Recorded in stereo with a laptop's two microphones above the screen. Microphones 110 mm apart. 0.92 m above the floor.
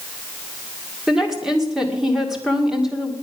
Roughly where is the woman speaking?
Centre.